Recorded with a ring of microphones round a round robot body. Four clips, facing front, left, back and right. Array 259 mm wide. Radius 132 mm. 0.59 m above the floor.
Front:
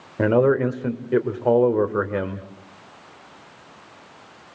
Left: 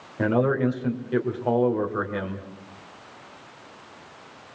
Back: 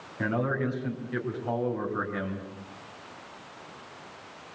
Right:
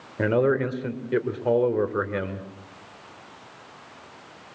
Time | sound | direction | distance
0.2 | a man speaking | 15° right | 2.5 m